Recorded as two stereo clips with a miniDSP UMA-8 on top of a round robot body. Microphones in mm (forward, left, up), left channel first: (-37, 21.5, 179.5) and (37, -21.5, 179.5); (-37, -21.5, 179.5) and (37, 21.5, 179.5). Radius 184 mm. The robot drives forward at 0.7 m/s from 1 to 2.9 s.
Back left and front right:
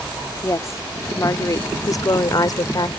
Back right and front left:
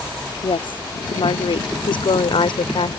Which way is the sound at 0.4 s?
155° right.